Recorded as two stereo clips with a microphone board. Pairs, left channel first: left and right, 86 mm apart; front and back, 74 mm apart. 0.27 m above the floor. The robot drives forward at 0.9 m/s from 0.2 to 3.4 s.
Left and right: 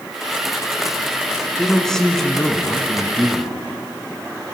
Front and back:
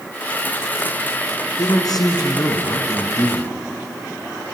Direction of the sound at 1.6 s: 5° left.